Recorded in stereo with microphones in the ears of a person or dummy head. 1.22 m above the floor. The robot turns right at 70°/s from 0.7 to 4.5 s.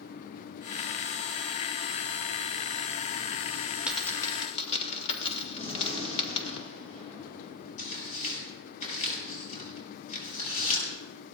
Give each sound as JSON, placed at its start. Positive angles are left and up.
{"t": 3.9, "sound": "a dropped coin", "side_deg": -5, "distance_m": 1.9}
{"t": 5.6, "sound": "a gunshot", "side_deg": 35, "distance_m": 7.5}
{"t": 7.8, "sound": "tearing paper", "side_deg": 50, "distance_m": 7.0}